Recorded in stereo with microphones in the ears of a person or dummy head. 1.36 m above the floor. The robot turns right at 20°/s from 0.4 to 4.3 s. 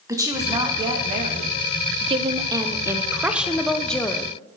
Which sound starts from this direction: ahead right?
A woman speaking, at 2.0 s.